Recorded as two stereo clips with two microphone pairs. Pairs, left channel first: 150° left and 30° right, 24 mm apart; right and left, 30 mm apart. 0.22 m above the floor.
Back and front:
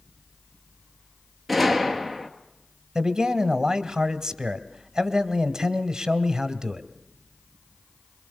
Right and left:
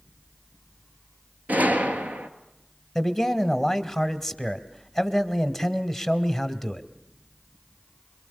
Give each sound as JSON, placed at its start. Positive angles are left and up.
{"t": 1.5, "sound": "a gunshot", "azimuth_deg": 65, "distance_m": 1.7}
{"t": 3.0, "sound": "a man speaking", "azimuth_deg": -25, "distance_m": 1.2}